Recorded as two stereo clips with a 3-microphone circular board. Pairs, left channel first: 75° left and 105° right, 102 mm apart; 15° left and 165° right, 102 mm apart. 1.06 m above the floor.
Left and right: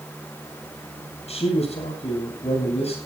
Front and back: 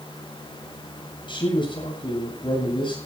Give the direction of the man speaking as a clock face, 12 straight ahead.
10 o'clock.